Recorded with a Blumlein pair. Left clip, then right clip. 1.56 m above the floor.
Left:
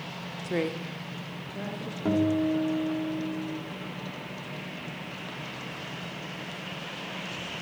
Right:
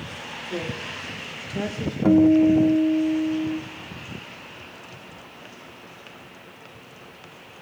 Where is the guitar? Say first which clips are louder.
Right 10 dB; 20° right, 0.8 m.